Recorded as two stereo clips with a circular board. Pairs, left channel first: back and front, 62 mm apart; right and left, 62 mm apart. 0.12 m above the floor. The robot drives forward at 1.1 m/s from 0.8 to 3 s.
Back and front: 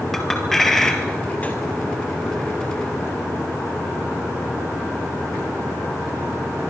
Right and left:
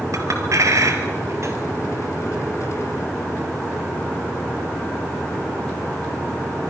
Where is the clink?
95° left, 2 m; by 1.5 s 120° left, 2.5 m.